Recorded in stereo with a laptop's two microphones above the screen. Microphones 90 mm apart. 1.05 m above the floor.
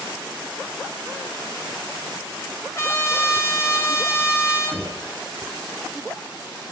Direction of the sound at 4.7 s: 10° left (ahead or behind).